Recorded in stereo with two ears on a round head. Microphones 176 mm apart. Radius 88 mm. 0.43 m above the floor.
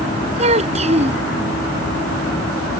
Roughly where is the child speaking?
Right.